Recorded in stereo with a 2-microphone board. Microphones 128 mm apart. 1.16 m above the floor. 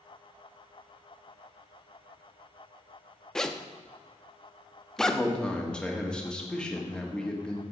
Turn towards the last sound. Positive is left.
turn(degrees=5)  # may be behind; listen again after turning